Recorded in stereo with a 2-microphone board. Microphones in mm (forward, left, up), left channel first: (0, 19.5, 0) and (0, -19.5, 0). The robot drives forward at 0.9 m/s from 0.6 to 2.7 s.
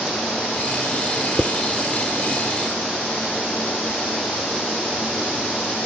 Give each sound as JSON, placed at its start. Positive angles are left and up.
{"t": 1.4, "sound": "dishes clattering", "side_deg": 10}